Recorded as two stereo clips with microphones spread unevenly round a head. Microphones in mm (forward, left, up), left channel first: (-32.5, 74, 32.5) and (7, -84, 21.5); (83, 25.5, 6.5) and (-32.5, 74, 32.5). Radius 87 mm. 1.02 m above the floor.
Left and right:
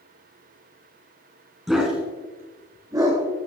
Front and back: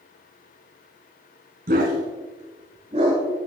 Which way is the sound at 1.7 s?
165° right.